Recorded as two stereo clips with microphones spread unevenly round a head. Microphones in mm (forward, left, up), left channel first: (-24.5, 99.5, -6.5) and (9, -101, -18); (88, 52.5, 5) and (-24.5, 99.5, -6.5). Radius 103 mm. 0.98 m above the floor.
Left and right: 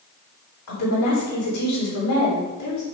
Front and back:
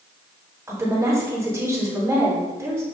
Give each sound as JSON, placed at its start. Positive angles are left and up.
{"t": 0.7, "sound": "a woman speaking", "azimuth_deg": 90, "distance_m": 3.0}